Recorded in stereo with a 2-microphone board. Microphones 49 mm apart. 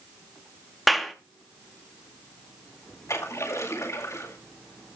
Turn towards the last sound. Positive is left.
turn(degrees=85)